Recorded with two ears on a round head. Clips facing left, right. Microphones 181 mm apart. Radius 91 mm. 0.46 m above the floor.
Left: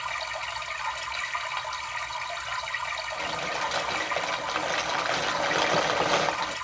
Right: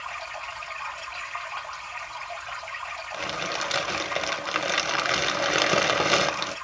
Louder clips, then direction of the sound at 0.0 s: Left 2 dB; 60° left (ahead or behind).